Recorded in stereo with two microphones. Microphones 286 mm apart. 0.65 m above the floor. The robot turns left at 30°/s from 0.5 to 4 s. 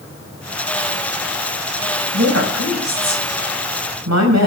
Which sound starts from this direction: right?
A woman speaking, at 2.1 s.